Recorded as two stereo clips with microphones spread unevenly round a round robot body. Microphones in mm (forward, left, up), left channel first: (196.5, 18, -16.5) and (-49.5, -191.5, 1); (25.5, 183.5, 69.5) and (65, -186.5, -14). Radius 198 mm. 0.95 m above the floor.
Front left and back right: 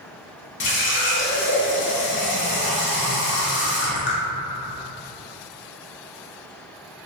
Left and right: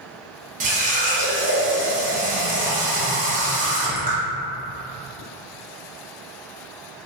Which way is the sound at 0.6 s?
15° right.